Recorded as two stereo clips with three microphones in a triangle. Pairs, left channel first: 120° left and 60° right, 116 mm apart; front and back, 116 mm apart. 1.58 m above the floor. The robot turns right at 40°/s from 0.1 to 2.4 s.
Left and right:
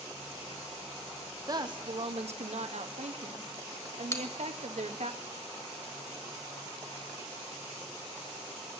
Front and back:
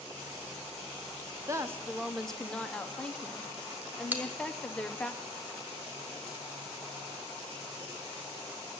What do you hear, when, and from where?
1.5 s a woman speaking: 120° right, 0.9 m; by 5.1 s 80° right, 0.9 m
4.1 s a bell: 130° left, 1.4 m